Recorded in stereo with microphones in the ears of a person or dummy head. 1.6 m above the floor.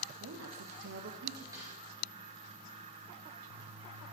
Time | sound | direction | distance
0.2 | a woman speaking | 75° right (ahead or behind) | 1.5 m
1.5 | a snare drum | 20° right (ahead or behind) | 4 m